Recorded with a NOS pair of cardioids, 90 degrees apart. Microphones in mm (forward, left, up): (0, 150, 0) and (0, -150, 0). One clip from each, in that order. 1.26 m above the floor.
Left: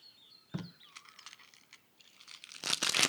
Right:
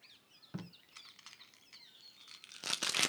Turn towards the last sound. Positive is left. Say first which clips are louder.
# left 4 dB
turn(degrees=15)